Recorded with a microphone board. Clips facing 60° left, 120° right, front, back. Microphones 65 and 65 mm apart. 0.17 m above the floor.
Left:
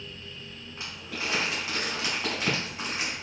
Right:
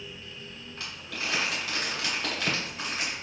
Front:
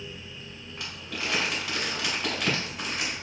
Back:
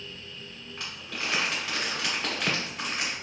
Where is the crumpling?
75° left, 1.8 m.